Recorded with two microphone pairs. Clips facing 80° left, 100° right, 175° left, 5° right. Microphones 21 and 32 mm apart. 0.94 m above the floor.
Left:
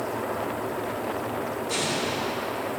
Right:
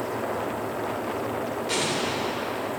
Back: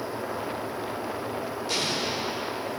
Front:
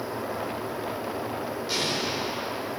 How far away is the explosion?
About 3.5 m.